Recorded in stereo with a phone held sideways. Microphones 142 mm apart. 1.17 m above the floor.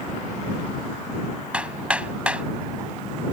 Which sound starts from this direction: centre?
Hammering, at 1.5 s.